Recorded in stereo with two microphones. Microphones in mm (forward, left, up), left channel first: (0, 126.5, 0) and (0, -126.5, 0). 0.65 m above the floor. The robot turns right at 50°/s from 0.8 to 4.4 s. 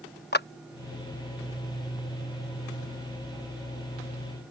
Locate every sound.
0.3 s a clap: 40° left (ahead or behind)